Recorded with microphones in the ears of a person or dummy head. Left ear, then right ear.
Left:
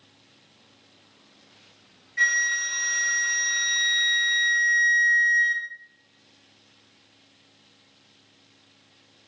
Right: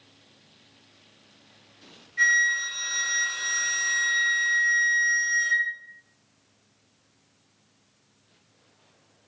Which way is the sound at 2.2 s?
35° left (ahead or behind).